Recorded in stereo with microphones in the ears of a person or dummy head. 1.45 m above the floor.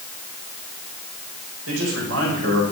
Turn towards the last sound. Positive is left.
turn(degrees=-90)